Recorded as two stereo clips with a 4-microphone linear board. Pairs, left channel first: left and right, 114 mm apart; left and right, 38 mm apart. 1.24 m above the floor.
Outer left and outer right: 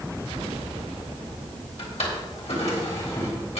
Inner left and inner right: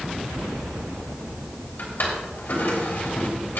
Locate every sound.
1.8 s a drawer: 75° left (ahead or behind), 3 m